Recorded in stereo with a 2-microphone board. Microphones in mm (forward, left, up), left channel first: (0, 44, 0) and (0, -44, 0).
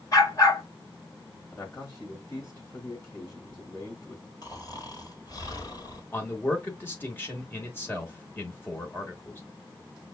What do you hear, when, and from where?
0.1 s a dog barking: 40° left (ahead or behind), 1.1 m
1.5 s a man speaking: 35° left (ahead or behind), 2 m
4.4 s snoring: 50° left (ahead or behind), 1.4 m
6.1 s a man speaking: 25° left (ahead or behind), 1.2 m